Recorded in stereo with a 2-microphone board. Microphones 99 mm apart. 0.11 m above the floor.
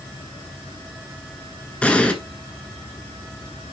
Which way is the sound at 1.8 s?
10° left (ahead or behind).